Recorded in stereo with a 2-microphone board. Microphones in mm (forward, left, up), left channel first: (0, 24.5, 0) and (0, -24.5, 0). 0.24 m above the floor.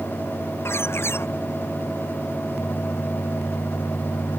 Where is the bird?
55° left (ahead or behind).